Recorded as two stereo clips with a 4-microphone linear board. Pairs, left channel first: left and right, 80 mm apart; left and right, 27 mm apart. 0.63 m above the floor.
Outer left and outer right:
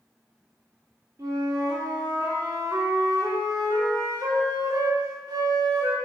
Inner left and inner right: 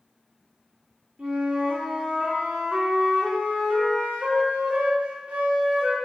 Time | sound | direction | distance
1.2 | a flute | 45° right (ahead or behind) | 1.7 m